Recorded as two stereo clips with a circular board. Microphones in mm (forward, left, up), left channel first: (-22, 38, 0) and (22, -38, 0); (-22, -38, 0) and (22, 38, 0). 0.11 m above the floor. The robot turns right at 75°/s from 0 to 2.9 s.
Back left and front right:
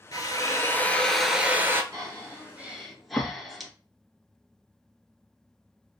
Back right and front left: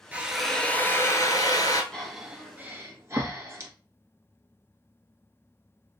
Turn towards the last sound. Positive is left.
turn(degrees=30)